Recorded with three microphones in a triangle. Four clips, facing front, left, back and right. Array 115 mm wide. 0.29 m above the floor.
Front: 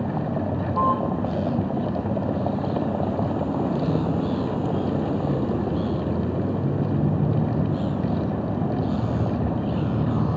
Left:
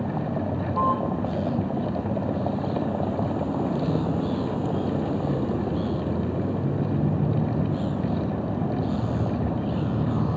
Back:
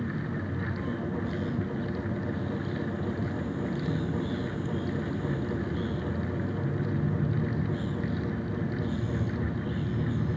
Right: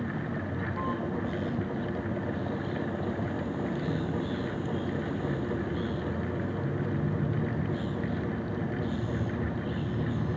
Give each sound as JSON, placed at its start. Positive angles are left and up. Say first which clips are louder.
{"t": 0.0, "sound": "a vehicle", "louder": "left 6 dB, front 8 dB", "azimuth_deg": 35}